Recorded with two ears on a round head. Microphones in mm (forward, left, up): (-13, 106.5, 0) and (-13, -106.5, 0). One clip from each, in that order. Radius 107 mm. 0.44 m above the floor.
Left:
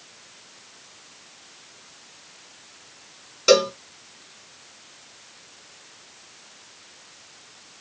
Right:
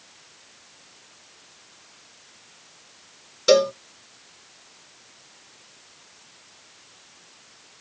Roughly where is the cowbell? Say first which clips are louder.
Even; centre.